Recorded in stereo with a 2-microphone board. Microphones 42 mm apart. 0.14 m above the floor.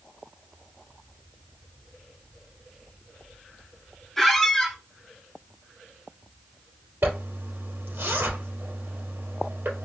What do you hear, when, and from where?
4.2 s a squeak: 10° left (ahead or behind), 0.6 m
7.0 s a zipper: 55° right (ahead or behind), 2.5 m